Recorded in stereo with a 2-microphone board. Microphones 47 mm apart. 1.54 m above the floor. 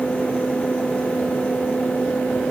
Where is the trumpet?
I don't hear a trumpet.